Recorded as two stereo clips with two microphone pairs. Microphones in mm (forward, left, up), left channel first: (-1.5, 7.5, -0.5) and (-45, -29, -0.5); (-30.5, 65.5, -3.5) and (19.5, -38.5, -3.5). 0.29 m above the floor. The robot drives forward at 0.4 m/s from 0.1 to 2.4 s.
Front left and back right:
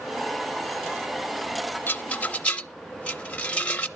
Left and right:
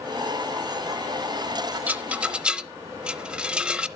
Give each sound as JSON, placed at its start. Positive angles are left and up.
{"t": 1.9, "sound": "a rattle", "azimuth_deg": 5, "distance_m": 0.7}